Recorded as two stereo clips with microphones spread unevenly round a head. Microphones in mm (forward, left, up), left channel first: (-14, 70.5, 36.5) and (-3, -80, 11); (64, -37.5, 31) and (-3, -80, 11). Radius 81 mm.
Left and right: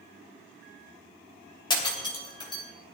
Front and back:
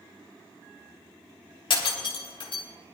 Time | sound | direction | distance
1.7 | breaking glass | 30° left | 2.5 m